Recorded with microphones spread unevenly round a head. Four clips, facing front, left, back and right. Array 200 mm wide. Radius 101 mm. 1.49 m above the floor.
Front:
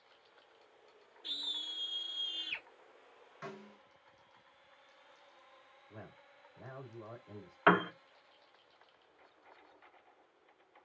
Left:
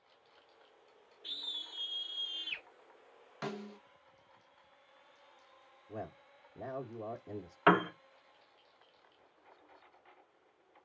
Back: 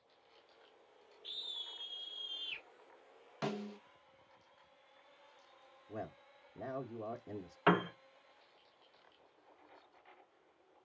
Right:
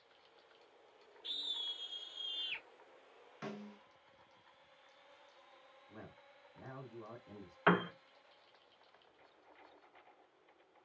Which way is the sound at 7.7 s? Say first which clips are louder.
Left 5 dB, front 3 dB; 75° left.